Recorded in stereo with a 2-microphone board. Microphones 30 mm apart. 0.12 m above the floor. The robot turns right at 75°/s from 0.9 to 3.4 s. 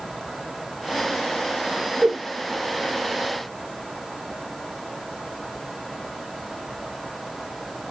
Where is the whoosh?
35° right (ahead or behind), 1.8 m.